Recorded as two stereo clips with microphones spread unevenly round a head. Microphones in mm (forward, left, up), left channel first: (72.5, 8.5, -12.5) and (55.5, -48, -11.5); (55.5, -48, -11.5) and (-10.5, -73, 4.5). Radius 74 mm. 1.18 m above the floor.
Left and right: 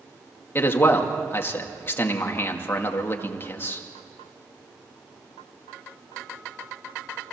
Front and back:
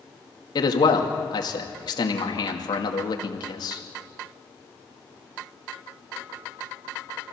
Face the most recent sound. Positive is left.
turn(degrees=25)